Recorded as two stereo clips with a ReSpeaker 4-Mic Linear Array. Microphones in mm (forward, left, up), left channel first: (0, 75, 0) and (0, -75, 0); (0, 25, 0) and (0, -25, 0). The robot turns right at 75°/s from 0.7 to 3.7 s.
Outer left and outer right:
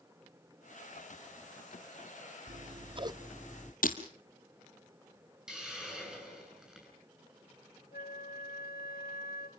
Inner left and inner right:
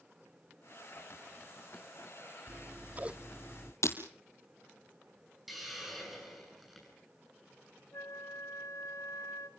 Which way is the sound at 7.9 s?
85° left.